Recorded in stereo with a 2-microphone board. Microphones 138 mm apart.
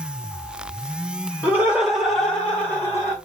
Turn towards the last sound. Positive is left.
turn(degrees=25)  # may be behind; listen again after turning